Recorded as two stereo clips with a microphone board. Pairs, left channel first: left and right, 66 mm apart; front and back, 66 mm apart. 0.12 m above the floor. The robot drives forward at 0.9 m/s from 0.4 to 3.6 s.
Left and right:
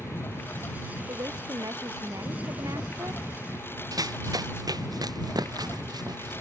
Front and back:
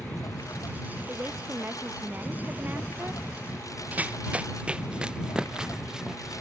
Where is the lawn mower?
30° left; by 6.4 s 35° left.